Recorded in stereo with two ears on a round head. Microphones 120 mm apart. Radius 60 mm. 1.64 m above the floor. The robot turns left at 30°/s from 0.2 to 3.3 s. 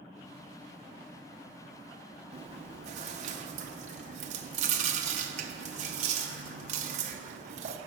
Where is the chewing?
45° right (ahead or behind), 0.8 m; by 7.8 s 55° right (ahead or behind), 0.8 m.